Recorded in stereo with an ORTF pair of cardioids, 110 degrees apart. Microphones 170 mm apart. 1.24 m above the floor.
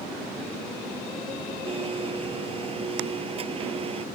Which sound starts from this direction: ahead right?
A blender, at 1.7 s.